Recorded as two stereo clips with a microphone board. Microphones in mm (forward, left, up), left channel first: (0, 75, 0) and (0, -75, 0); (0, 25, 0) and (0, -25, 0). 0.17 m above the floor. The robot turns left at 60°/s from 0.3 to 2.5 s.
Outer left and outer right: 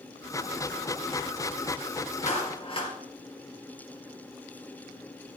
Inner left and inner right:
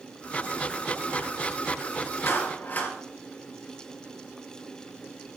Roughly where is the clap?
Left.